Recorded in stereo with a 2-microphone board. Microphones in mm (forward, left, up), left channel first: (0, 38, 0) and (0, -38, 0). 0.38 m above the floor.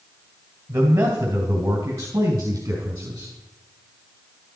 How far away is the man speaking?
About 2.5 m.